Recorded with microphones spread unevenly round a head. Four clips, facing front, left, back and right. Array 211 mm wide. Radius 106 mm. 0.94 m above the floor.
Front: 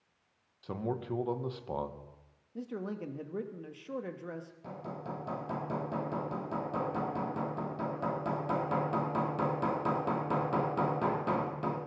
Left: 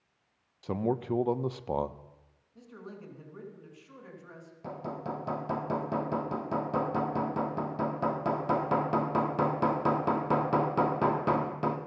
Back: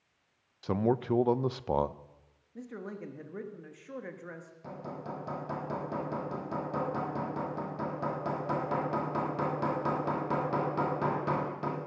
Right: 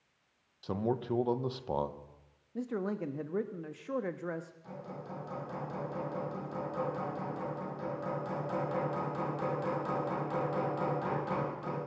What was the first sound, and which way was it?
A man speaking, 160° left.